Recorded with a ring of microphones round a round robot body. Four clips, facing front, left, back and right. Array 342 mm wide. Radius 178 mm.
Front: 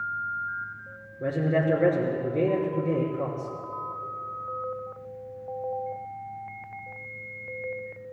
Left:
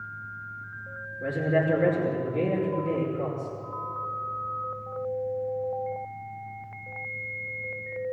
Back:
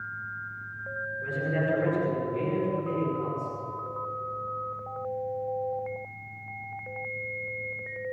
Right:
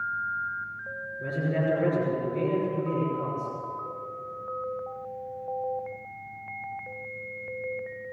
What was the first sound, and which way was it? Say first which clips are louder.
A man speaking: left 3 dB, front 5 dB; 10° left.